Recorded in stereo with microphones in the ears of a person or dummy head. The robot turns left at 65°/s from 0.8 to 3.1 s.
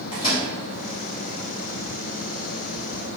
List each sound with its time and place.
0.1 s a microwave: 35° left (ahead or behind), 1.4 m